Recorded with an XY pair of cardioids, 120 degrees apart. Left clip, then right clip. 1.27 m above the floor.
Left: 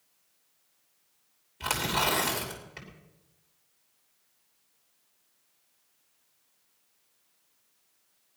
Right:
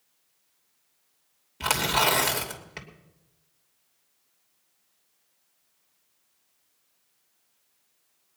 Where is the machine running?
I don't hear a machine running.